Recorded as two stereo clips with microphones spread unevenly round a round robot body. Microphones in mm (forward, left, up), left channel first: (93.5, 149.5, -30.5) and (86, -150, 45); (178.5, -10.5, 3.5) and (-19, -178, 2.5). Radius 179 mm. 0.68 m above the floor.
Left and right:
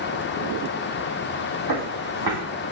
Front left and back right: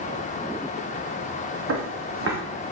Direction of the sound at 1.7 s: 100° right.